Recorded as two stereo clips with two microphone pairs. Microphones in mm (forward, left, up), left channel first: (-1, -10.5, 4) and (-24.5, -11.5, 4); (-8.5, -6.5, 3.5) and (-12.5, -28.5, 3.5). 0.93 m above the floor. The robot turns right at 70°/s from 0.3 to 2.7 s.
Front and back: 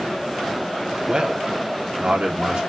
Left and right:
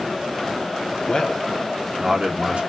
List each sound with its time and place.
1.1 s a man speaking: 125° left, 2.5 m; by 2.6 s 130° right, 2.5 m